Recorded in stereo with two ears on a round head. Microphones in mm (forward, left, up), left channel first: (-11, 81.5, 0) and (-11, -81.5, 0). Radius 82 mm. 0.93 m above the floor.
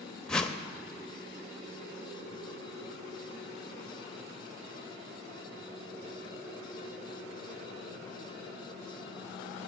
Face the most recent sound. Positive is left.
turn(degrees=5)  # may be behind; listen again after turning